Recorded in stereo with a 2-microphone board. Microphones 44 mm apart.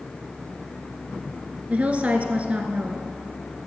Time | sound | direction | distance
1.7 | a woman speaking | 30° right (ahead or behind) | 1.3 m